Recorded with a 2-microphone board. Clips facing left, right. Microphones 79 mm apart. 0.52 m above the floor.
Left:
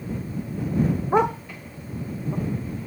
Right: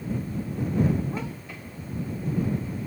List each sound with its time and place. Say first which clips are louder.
1.1 s a dog barking: left 13 dB; 70° left (ahead or behind); by 2.9 s 80° left